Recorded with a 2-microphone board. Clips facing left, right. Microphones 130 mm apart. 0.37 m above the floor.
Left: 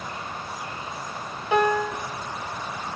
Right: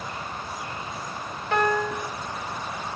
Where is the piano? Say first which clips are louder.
Left 2 dB; 10° left (ahead or behind), 1.9 m.